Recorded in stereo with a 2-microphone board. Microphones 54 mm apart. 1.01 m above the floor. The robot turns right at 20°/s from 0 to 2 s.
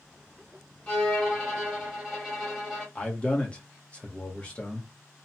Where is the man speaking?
20° left (ahead or behind), 0.9 m.